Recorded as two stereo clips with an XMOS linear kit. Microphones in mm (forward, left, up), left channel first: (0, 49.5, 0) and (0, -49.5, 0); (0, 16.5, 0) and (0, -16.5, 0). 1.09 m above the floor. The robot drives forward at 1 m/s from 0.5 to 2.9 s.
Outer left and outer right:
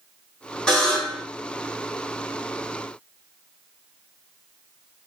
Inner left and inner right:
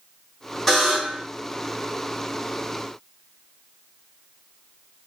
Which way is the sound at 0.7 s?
5° left (ahead or behind).